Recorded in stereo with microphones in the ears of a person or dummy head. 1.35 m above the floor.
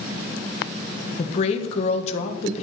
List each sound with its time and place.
1.2 s a woman speaking: 40° left (ahead or behind), 1.4 m